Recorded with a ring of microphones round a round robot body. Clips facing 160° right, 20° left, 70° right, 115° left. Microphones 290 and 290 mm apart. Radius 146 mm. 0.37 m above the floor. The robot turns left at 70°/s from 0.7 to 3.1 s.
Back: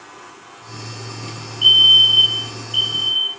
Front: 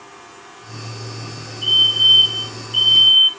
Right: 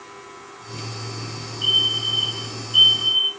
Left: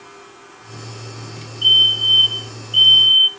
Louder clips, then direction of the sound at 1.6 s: Back 1 dB, right 1 dB; 175° left.